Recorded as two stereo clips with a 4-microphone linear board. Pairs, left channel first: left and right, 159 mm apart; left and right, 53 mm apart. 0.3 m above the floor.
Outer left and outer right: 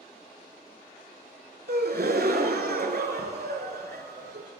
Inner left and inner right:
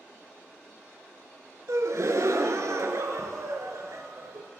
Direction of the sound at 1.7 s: 75° right (ahead or behind).